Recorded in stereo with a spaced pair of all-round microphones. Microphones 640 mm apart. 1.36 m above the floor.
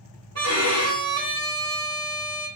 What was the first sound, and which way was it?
A violin, 25° right (ahead or behind).